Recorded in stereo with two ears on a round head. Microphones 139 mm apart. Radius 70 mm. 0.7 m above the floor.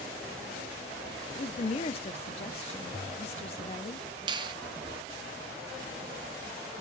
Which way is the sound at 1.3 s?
40° left (ahead or behind).